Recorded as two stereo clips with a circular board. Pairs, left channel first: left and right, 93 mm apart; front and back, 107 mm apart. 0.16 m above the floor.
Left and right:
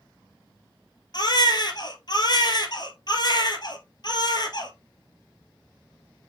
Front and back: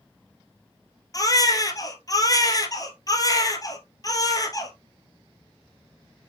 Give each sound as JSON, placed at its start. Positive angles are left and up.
{"t": 1.1, "sound": "a baby crying", "azimuth_deg": 55, "distance_m": 1.6}